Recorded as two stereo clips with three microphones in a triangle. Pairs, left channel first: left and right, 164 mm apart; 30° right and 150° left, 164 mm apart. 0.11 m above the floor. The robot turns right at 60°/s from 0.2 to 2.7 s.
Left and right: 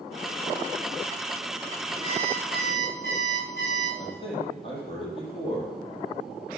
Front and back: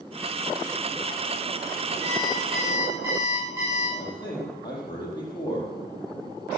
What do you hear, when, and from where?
2.0 s an alarm clock: 30° left, 5.5 m; by 3.9 s 75° left, 5.5 m
4.0 s a man speaking: 35° left, 4.5 m